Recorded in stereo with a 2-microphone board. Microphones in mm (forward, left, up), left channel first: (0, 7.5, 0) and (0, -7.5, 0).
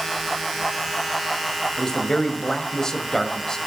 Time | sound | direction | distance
1.8 | a man speaking | 40° left (ahead or behind) | 1.7 m